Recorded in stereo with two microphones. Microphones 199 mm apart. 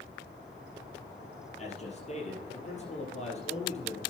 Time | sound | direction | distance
1.6 | a man speaking | 35° left (ahead or behind) | 3.5 m